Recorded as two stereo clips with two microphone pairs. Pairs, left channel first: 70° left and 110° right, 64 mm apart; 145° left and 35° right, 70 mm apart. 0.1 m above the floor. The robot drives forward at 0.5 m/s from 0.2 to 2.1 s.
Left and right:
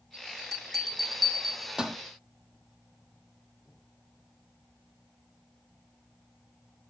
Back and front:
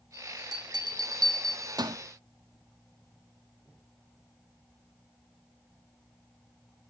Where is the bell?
15° right, 1.4 m; by 2.0 s 35° right, 0.6 m.